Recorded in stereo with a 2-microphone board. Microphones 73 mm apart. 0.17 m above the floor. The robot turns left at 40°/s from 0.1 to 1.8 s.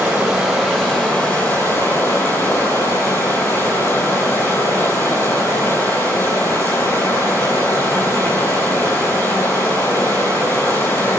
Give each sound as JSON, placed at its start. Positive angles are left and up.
{"t": 0.0, "sound": "running water", "azimuth_deg": -160, "distance_m": 3.5}